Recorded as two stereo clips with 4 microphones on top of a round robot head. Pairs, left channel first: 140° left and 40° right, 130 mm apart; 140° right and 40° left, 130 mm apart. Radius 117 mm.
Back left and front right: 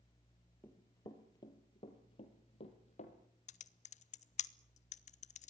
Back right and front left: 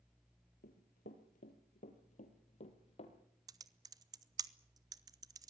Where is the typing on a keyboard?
105° left, 0.8 m.